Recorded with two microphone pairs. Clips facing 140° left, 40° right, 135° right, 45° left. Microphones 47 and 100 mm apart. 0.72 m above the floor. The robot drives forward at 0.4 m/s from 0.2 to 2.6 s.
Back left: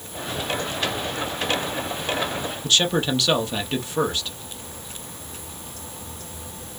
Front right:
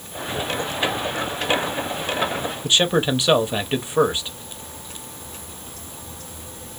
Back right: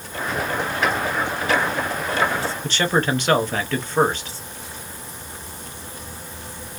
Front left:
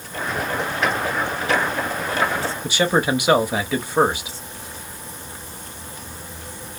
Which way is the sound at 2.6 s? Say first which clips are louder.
Front right 2 dB, front left 2 dB; 15° right.